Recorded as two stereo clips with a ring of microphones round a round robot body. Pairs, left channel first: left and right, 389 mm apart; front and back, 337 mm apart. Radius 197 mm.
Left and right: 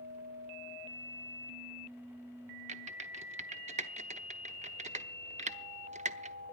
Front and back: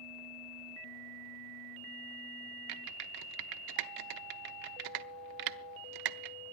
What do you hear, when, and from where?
2.7 s typing on a keyboard: 165° right, 0.8 m